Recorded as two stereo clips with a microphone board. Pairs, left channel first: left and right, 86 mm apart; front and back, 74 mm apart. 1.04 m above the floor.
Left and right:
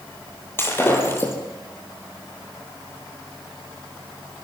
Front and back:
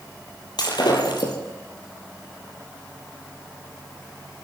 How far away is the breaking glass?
About 5.5 m.